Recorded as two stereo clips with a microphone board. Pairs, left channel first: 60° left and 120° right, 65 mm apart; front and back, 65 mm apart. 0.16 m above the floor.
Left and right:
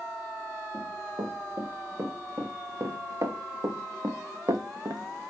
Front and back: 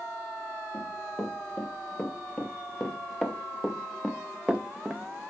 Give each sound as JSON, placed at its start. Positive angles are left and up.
{"t": 0.7, "sound": "running footsteps", "azimuth_deg": -70, "distance_m": 3.5}